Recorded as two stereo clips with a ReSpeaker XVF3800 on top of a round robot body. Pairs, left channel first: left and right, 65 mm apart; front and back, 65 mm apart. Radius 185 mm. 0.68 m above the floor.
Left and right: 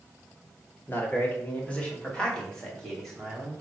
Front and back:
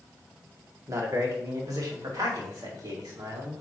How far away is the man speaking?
About 2.5 m.